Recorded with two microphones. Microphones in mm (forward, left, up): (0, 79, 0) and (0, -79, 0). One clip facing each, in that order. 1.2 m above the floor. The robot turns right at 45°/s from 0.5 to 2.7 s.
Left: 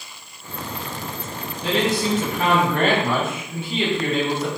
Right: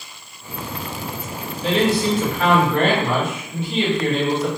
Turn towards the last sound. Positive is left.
turn(degrees=170)